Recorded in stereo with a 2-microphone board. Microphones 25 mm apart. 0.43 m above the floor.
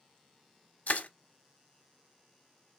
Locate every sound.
0.9 s crushing: 80° left, 1.0 m